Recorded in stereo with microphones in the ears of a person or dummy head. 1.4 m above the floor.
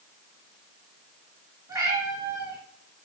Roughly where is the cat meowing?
Right.